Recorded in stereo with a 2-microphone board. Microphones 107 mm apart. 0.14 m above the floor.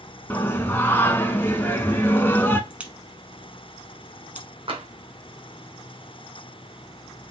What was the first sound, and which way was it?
Singing, 20° left (ahead or behind).